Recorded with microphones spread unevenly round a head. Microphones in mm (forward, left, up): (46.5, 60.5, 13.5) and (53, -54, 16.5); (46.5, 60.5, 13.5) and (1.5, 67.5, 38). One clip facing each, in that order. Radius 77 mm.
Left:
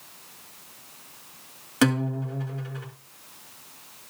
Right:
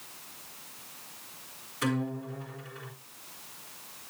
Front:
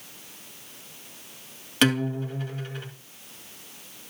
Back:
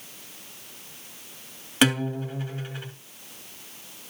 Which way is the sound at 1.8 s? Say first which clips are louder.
Left 7 dB, even; 90° left.